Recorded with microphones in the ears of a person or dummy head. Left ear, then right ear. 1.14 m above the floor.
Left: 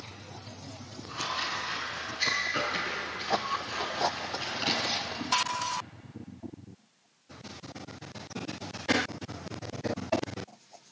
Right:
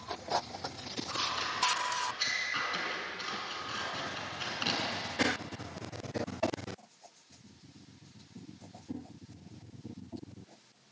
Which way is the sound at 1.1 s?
15° right (ahead or behind).